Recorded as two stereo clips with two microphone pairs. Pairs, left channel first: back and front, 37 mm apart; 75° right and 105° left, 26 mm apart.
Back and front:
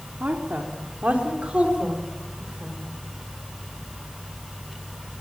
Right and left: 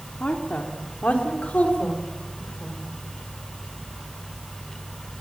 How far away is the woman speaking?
About 3 m.